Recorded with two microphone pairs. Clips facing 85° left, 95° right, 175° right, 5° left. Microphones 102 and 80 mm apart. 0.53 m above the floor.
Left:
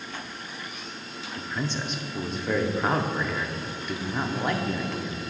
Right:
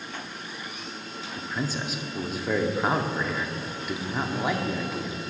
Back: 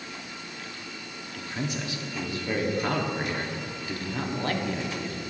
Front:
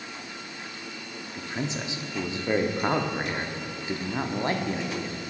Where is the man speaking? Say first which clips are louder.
Even, front 1 dB; 15° right, 0.7 m.